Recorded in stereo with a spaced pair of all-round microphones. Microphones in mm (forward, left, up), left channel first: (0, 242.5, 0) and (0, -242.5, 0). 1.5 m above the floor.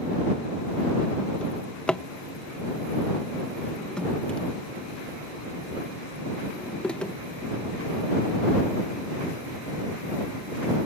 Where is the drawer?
Centre (ahead or behind).